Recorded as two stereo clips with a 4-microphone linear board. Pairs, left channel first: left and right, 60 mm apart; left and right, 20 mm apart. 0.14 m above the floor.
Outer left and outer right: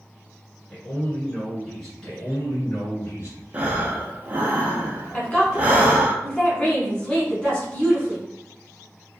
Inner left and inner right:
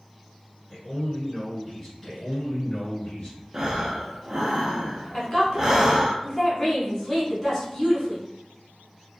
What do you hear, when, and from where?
0.7 s a man speaking: 5° left (ahead or behind), 1.8 m
2.0 s a man speaking: 50° left (ahead or behind), 1.9 m
3.5 s breathing: 25° right (ahead or behind), 0.5 m
5.1 s a woman speaking: 20° left (ahead or behind), 1.1 m